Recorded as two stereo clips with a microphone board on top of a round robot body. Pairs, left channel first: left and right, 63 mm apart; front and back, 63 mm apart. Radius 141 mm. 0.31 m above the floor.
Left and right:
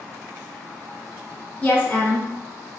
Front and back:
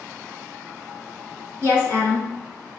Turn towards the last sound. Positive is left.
turn(degrees=30)